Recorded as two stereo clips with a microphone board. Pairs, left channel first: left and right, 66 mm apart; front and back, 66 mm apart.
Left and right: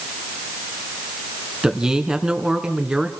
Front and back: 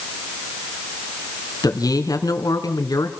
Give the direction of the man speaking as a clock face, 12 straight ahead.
12 o'clock.